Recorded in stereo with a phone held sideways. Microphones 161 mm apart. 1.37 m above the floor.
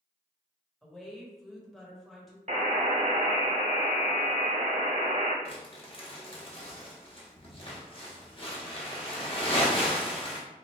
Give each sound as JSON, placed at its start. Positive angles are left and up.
{"t": 0.8, "sound": "a woman speaking", "side_deg": 0, "distance_m": 1.2}
{"t": 2.5, "sound": "a buzzer", "side_deg": -50, "distance_m": 0.9}
{"t": 5.5, "sound": "crumpling", "side_deg": 35, "distance_m": 0.9}